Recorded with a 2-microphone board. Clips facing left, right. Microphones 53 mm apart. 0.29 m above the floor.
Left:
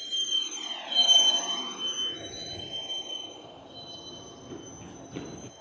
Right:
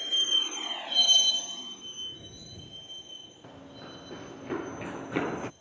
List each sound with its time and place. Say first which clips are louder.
0.0 s a vehicle: right 3 dB; 40° right (ahead or behind); by 5.6 s 60° left (ahead or behind)
3.4 s running footsteps: even; 60° right (ahead or behind); by 5.5 s 70° right (ahead or behind)